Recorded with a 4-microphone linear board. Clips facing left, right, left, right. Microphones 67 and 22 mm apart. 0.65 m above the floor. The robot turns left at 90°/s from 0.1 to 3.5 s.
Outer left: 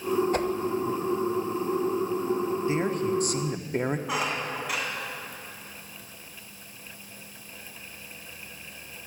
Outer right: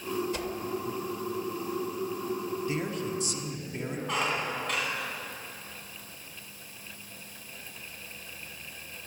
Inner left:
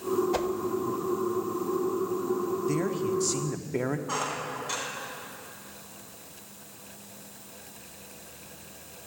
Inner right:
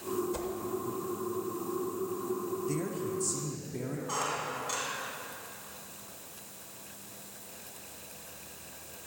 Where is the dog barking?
No dog barking in this recording.